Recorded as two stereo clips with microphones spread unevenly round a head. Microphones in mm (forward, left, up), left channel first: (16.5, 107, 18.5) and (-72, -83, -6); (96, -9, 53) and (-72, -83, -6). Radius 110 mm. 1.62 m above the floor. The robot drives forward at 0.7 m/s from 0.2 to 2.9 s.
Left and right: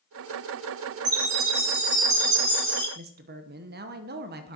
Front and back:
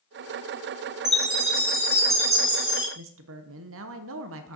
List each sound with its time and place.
1.1 s a chime: 85° right, 5 m; by 2.9 s 100° right, 5 m
3.0 s a woman speaking: 150° right, 0.8 m